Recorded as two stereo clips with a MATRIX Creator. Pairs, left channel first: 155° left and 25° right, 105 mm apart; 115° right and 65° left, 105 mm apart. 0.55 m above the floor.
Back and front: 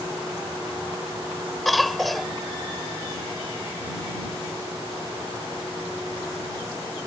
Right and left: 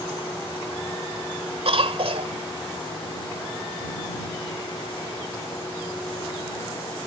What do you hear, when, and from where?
1.6 s a cough: 70° left